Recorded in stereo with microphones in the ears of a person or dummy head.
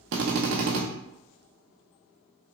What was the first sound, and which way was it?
A drill, 60° right (ahead or behind).